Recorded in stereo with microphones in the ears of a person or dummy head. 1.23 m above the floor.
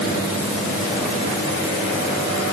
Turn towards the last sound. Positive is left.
No sound to turn to.